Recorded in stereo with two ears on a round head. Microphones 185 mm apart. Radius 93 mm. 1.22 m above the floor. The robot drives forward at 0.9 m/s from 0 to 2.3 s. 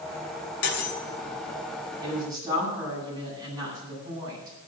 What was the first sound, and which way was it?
Cutlery clinking, 80° left.